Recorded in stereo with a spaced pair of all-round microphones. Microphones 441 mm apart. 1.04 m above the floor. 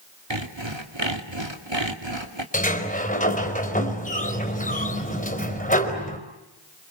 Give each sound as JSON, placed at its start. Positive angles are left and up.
{"t": 0.3, "sound": "sawing", "side_deg": -80, "distance_m": 2.5}
{"t": 2.5, "sound": "a sliding door", "side_deg": 15, "distance_m": 4.0}